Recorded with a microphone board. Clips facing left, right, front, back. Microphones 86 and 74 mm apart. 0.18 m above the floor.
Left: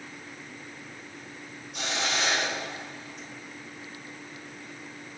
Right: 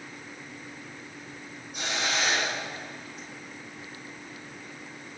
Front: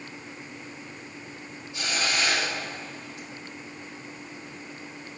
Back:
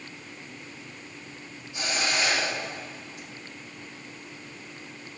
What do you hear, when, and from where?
1.7 s a hiss: 105° left, 3.5 m